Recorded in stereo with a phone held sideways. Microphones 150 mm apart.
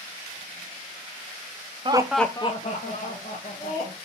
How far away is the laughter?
About 0.6 m.